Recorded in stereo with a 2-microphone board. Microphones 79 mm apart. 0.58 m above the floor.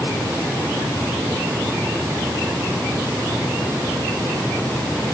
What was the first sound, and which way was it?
Only background noise.